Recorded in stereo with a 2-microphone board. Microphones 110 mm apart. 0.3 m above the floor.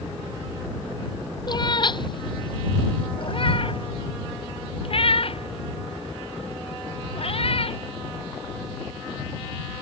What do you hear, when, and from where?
1.5 s a cat meowing: 40° left (ahead or behind); by 7.8 s 60° left (ahead or behind)